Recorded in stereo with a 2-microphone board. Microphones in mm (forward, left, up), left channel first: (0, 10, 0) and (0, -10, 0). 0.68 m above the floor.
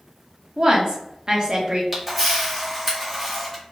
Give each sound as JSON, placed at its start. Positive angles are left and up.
{"t": 0.6, "sound": "a woman speaking", "side_deg": -35, "distance_m": 0.9}
{"t": 1.9, "sound": "a camera shutter", "side_deg": -5, "distance_m": 1.4}